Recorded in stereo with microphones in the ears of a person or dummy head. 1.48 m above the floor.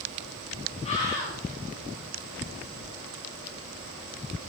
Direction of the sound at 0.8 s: 35° left (ahead or behind).